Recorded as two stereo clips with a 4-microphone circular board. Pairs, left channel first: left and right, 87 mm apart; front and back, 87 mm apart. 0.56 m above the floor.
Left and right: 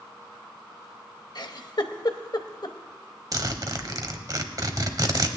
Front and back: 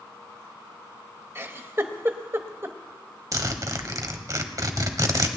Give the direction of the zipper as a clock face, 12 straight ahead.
4 o'clock.